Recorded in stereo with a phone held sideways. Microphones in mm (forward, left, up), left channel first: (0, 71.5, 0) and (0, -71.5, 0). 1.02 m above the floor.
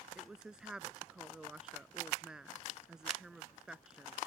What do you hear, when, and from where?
0.1 s a woman speaking: 5° right (ahead or behind)